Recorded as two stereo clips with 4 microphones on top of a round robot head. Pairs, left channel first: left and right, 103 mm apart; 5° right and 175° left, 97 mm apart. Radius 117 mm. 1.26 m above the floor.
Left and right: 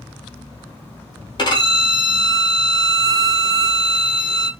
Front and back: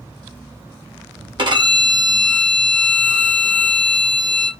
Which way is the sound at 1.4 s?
135° left.